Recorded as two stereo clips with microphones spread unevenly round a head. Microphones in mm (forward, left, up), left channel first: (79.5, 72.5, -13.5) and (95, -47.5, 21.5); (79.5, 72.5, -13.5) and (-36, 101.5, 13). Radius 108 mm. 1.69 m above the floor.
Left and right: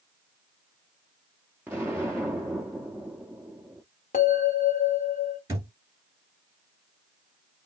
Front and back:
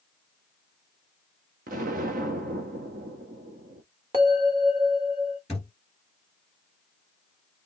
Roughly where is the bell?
Behind left.